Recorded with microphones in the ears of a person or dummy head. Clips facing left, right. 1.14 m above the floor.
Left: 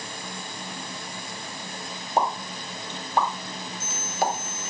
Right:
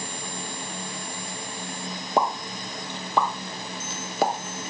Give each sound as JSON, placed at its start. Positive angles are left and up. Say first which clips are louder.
{"t": 2.2, "sound": "a pop", "louder": "right 1 dB", "side_deg": -60, "distance_m": 0.8}